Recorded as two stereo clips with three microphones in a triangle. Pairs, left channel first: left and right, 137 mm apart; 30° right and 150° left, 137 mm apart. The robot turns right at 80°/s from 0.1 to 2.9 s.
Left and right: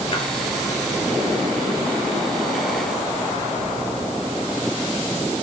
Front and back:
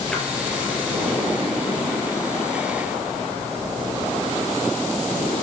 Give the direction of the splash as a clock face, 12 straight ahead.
10 o'clock.